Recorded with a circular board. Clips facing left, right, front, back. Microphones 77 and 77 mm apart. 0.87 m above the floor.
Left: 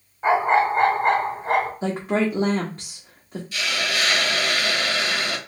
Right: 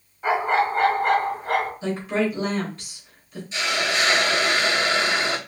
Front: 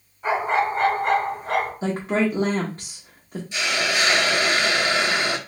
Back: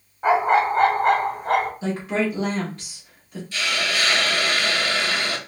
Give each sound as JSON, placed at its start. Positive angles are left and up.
{"t": 0.2, "sound": "a dog barking", "azimuth_deg": 150, "distance_m": 2.0}
{"t": 1.8, "sound": "a woman speaking", "azimuth_deg": 55, "distance_m": 0.9}
{"t": 3.5, "sound": "a hiss", "azimuth_deg": -50, "distance_m": 0.6}